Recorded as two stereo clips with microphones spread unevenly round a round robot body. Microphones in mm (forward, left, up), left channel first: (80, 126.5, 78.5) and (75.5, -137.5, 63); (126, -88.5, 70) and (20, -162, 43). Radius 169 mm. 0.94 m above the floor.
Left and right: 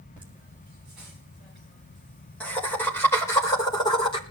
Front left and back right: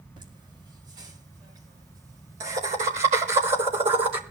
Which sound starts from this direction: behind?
Laughter, at 0.2 s.